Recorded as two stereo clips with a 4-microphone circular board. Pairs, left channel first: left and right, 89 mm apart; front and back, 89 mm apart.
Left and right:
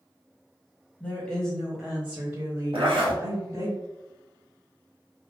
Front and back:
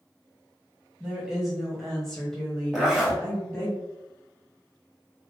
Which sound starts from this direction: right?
A zipper, at 2.7 s.